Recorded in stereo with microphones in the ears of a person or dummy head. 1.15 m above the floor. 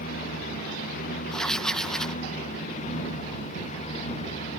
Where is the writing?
5° left (ahead or behind).